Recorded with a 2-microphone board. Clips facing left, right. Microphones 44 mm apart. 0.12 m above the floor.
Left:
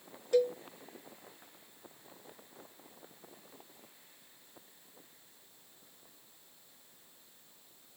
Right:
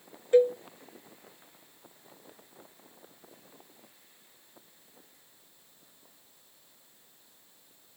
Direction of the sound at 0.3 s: 30° right (ahead or behind).